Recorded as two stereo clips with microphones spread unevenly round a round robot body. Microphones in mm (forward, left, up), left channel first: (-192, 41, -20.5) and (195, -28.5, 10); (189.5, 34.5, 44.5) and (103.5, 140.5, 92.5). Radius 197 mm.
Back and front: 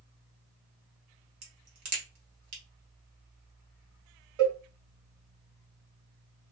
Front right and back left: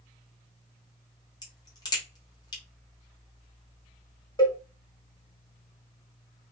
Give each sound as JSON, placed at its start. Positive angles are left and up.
{"t": 1.4, "sound": "a crack", "azimuth_deg": -55, "distance_m": 1.0}
{"t": 4.4, "sound": "a cowbell", "azimuth_deg": -5, "distance_m": 1.6}